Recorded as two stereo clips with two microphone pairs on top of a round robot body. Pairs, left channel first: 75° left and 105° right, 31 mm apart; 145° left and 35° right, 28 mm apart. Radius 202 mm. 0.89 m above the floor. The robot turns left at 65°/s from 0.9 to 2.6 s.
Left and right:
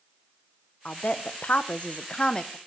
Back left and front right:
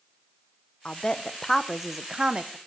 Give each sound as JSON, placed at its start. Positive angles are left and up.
{"t": 0.8, "sound": "a woman speaking", "azimuth_deg": 105, "distance_m": 1.0}